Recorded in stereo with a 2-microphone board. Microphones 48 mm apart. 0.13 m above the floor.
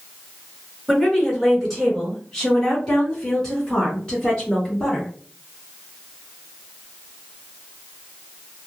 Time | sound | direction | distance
0.9 | a woman speaking | centre (ahead or behind) | 1.8 m